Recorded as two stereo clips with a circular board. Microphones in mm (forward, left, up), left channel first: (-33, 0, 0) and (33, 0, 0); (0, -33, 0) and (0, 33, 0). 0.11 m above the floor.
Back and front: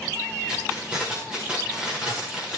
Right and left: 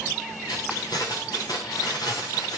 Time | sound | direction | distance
0.5 | keys jangling | 75° right | 8.5 m